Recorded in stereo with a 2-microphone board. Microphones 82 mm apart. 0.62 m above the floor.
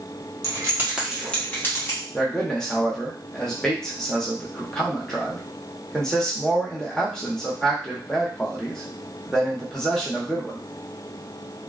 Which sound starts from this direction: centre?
A man speaking, at 2.1 s.